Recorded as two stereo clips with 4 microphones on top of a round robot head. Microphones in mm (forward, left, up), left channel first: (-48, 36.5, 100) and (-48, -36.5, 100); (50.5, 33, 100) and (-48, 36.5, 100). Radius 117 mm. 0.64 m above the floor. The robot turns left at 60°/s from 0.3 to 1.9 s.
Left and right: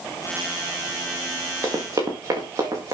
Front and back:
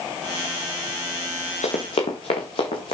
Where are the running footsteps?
25° right, 3.5 m; by 3.0 s 40° right, 4 m.